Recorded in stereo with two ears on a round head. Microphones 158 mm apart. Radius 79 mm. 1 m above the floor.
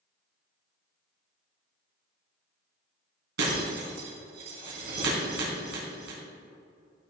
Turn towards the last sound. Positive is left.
turn(degrees=-70)  # may be behind; listen again after turning